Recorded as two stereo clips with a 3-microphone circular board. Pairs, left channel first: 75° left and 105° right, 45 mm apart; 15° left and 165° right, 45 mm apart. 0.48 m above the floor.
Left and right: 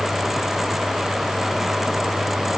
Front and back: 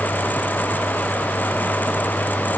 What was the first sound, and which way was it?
Only background noise.